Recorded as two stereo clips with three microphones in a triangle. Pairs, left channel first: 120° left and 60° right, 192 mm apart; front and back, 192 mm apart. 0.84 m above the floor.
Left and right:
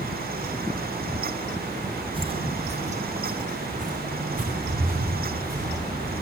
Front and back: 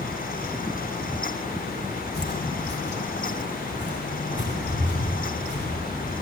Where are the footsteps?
Straight ahead, 1.6 m; by 6.2 s 20° right, 7 m.